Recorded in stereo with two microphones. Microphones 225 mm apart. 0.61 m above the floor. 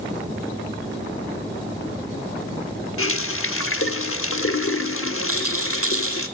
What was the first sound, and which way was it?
A running tap, 70° left (ahead or behind).